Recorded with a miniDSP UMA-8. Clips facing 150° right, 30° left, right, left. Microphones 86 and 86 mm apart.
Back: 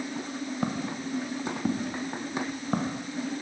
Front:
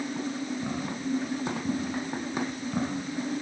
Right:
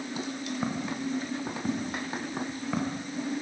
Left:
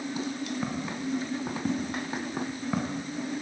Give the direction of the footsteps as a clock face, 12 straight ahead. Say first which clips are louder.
Even, right 1 dB; 6 o'clock.